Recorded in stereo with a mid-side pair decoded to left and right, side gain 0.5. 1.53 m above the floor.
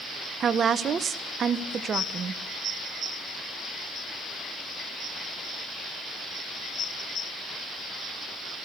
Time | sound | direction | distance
0.4 | a woman speaking | 45° right | 1.1 m